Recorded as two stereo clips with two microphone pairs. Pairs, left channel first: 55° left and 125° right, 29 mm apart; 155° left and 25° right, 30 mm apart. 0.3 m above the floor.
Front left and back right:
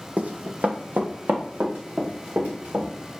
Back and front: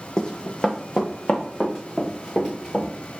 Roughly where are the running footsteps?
Behind right.